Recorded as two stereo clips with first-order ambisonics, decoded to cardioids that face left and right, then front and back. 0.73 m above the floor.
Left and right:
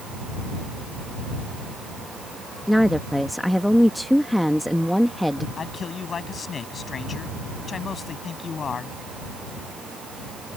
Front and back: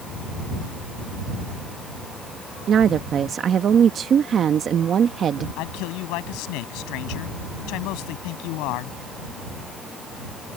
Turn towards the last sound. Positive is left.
turn(degrees=20)